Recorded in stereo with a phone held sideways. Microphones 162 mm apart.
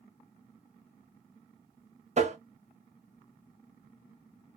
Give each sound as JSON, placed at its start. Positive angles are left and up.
{"t": 2.2, "sound": "tapping", "side_deg": -45, "distance_m": 0.8}